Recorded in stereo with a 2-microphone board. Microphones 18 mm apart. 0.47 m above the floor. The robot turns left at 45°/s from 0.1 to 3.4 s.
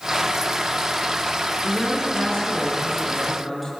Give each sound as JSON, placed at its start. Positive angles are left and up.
{"t": 1.6, "sound": "a man speaking", "azimuth_deg": 75, "distance_m": 8.0}